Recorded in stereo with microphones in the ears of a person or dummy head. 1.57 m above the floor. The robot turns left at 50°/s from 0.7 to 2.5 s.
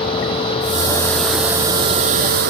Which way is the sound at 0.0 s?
30° left.